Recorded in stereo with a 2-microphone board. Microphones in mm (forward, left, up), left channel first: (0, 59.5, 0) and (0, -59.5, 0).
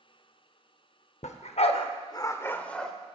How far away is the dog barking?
About 0.6 m.